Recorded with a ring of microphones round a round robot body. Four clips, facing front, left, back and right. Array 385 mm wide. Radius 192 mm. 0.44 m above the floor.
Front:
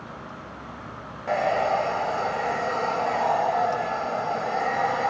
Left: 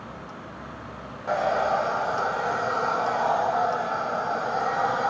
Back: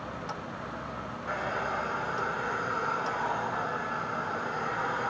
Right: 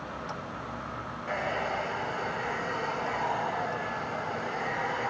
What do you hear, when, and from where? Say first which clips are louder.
1.3 s a hair dryer: left 9 dB, front 11 dB; 40° left